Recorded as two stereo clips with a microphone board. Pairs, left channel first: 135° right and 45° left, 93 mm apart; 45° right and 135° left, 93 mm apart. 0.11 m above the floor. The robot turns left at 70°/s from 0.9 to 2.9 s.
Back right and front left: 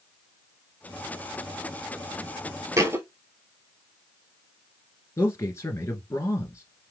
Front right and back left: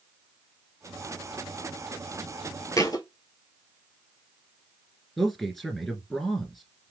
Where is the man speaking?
135° right, 1.6 m.